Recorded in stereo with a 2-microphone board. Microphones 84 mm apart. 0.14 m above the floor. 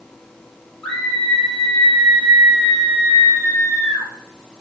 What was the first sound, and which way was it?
A scream, 15° left (ahead or behind).